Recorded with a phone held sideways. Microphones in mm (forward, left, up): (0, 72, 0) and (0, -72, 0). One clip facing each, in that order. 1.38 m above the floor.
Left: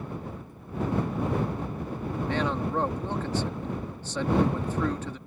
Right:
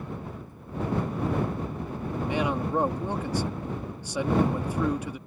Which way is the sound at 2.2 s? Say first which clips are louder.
Right 1 dB; 10° right (ahead or behind).